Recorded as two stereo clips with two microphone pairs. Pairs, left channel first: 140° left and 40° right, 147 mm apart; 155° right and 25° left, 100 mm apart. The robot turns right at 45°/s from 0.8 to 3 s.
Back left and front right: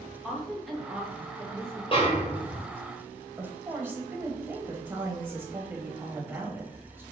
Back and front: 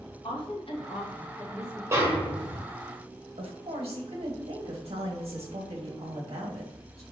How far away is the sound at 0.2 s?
About 1.5 m.